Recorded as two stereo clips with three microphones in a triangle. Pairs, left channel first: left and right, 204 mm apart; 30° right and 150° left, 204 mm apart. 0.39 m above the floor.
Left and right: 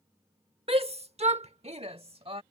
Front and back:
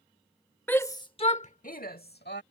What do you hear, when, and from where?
0.7 s a shout: 105° right; by 2.4 s 30° right